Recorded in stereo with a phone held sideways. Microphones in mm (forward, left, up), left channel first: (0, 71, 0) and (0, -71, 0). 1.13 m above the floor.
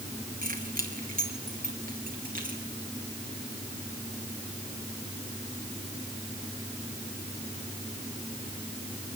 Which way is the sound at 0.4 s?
80° right.